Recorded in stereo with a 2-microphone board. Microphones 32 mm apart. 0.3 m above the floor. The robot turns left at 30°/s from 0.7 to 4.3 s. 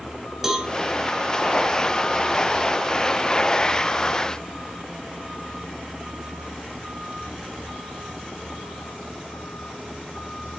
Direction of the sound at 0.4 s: 10° right (ahead or behind).